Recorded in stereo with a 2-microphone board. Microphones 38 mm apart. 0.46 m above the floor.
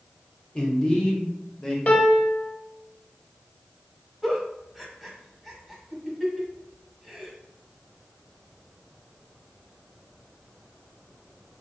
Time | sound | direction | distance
0.6 | a man speaking | 25° left (ahead or behind) | 0.9 m
1.9 | a piano | 40° left (ahead or behind) | 0.8 m
4.2 | a giggle | centre (ahead or behind) | 0.9 m